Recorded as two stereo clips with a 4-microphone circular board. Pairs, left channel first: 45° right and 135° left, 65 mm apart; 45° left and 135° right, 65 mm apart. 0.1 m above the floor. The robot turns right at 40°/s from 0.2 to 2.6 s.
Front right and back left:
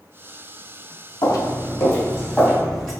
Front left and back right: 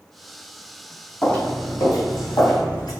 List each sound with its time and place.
1.2 s footsteps: 30° right, 0.8 m; by 2.9 s 35° left, 3 m